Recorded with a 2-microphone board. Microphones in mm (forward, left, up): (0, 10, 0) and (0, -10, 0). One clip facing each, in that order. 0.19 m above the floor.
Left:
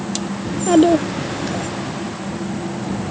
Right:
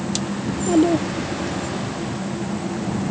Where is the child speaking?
35° left (ahead or behind).